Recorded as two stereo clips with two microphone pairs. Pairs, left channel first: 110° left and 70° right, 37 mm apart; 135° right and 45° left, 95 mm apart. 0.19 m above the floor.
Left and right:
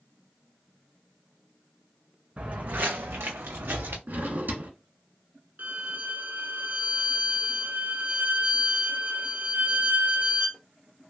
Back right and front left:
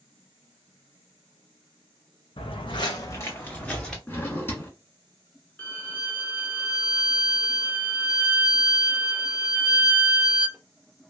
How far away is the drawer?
About 1.2 m.